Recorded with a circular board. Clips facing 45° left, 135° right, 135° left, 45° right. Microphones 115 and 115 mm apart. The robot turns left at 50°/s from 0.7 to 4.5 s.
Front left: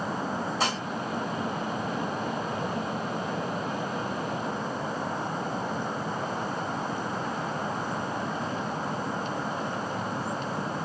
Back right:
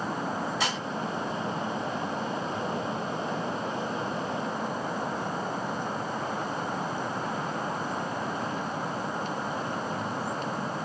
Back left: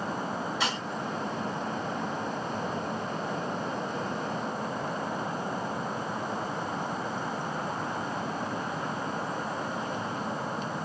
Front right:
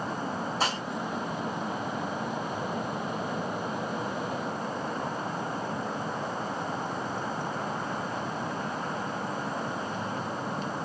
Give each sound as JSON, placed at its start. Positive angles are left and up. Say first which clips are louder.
{"t": 0.6, "sound": "dishes clattering", "louder": "front left 2 dB, front right 3 dB", "azimuth_deg": 0, "distance_m": 1.0}